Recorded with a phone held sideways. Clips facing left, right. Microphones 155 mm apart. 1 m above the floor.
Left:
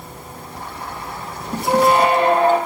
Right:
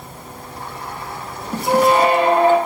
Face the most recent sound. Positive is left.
turn(degrees=-10)  # may be behind; listen again after turning